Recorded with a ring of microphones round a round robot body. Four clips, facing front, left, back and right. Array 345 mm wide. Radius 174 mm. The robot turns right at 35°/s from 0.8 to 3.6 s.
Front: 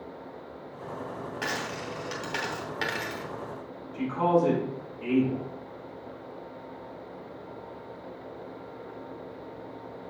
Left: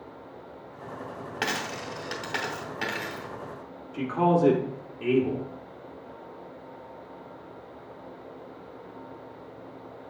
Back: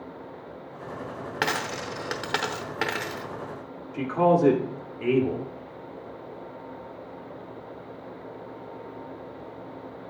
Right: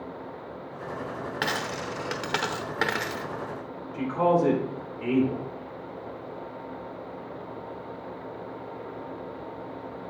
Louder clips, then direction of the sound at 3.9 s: Even, back 3 dB; 140° left.